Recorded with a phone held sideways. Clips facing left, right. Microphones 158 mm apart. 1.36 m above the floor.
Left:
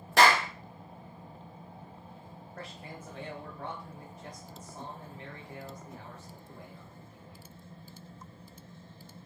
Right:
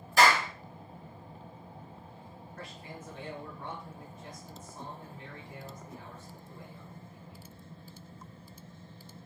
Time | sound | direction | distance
0.2 | a clap | 75° left (ahead or behind) | 1.3 m
2.6 | a man speaking | 85° left | 1.6 m